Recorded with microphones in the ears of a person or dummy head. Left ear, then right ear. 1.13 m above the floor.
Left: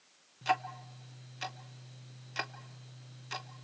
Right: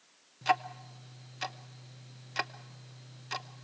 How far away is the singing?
I don't hear singing.